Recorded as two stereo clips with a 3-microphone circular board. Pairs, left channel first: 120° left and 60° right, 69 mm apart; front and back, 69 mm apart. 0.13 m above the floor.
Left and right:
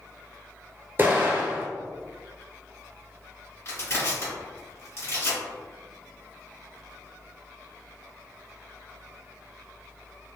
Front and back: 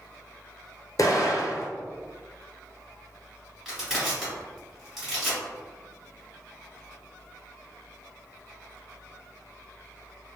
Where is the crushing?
95° left, 1.6 m.